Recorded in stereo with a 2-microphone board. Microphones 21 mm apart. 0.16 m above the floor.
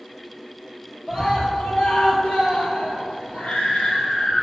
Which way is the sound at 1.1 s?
35° left (ahead or behind).